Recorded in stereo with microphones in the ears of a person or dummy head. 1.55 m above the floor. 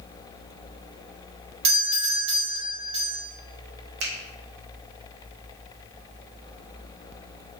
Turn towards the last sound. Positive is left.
turn(degrees=-80)